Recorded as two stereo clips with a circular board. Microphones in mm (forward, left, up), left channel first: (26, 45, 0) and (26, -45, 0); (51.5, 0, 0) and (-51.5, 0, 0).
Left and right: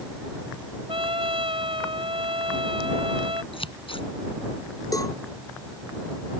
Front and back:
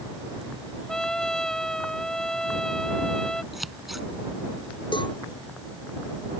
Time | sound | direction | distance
0.9 | a trumpet | 85° right | ?
3.5 | scissors | 90° left | ?
4.9 | a cowbell | 40° left | ?